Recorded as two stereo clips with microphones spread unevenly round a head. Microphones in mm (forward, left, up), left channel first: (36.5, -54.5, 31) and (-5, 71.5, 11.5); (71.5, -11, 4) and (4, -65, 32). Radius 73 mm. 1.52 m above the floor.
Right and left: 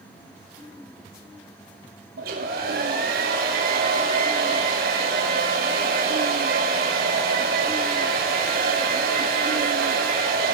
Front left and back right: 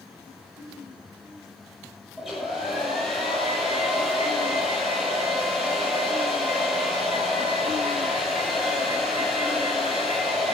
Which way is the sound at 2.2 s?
135° left.